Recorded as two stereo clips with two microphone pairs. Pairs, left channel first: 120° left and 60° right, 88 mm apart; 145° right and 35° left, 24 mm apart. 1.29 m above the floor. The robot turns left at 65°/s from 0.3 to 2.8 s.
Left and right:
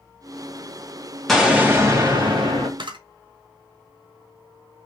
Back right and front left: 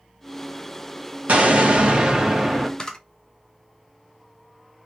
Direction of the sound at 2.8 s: 80° right.